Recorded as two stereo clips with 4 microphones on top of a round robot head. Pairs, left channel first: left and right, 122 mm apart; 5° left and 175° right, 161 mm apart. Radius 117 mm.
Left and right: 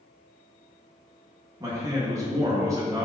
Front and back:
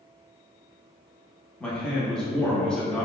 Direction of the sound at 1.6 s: 75° right.